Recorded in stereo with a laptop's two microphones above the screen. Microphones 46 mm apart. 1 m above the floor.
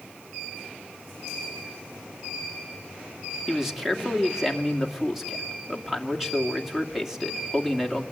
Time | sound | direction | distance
3.5 | a man speaking | 10° right (ahead or behind) | 2.5 m